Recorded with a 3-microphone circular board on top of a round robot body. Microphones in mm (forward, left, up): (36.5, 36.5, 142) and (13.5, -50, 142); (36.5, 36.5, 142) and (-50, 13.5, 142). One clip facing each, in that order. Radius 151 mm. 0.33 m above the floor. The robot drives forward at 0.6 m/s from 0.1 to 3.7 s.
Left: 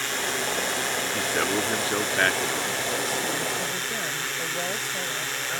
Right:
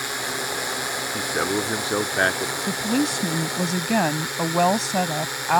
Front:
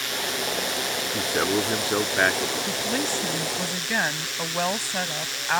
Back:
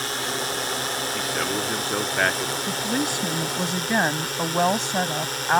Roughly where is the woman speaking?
Right.